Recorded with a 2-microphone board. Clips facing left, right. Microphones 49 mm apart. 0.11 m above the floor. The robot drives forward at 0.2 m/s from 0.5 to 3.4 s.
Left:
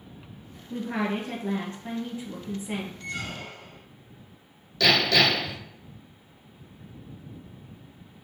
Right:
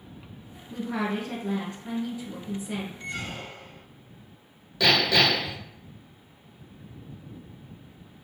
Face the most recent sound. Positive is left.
turn(degrees=-15)  # may be behind; listen again after turning